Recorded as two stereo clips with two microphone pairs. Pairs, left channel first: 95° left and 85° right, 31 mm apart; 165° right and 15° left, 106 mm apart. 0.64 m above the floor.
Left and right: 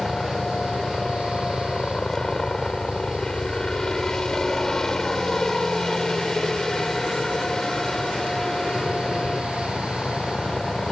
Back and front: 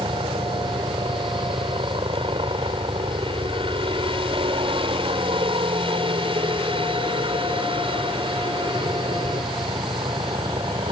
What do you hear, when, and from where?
0.0 s a helicopter: 25° left